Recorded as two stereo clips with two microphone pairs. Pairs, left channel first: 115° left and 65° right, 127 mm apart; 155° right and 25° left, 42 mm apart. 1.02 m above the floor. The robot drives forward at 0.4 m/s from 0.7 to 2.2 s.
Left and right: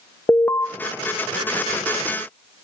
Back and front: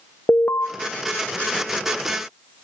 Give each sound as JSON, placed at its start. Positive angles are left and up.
{"t": 0.3, "sound": "an alarm", "azimuth_deg": -170, "distance_m": 1.0}